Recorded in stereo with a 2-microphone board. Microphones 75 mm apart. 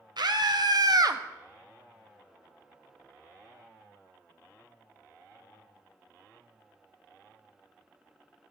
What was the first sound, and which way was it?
A scream, 70° right (ahead or behind).